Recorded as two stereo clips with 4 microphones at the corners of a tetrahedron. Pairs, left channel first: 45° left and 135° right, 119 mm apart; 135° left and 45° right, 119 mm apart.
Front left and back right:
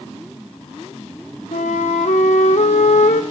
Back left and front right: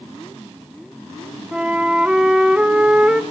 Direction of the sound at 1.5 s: 35° left.